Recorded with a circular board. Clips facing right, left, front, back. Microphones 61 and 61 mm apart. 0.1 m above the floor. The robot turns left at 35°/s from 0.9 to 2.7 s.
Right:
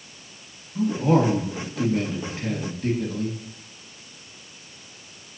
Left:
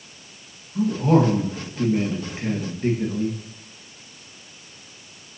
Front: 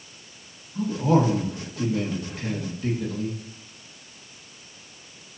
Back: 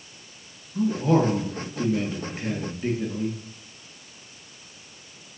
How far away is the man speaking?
About 1.4 m.